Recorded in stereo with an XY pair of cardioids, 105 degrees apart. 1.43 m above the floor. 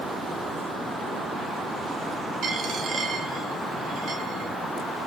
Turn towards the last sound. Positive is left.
turn(degrees=-65)